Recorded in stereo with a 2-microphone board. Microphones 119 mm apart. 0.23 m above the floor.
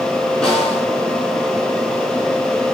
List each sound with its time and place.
0.4 s a snare drum: 5° left (ahead or behind), 3 m